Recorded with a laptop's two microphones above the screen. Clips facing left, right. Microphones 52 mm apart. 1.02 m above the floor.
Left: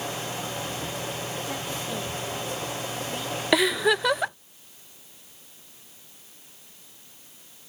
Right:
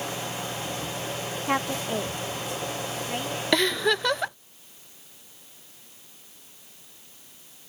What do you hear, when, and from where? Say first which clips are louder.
1.5 s a woman speaking: right 5 dB; 60° right (ahead or behind); by 3.4 s 35° right (ahead or behind)
3.5 s a giggle: left 2 dB; 10° left (ahead or behind)